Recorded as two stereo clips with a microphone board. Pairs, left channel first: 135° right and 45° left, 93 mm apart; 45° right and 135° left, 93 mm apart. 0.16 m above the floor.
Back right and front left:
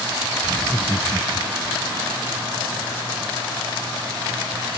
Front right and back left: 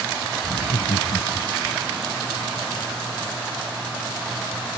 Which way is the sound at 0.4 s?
60° right.